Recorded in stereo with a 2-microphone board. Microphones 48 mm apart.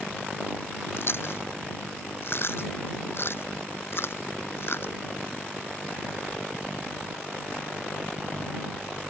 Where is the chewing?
55° left (ahead or behind).